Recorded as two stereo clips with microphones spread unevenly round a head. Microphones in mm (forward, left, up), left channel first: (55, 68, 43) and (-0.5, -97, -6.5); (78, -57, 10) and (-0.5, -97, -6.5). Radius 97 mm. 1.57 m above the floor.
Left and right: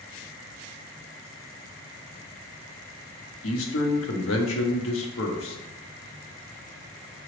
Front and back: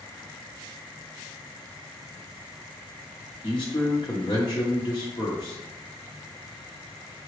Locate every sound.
3.4 s a man speaking: 95° left, 0.8 m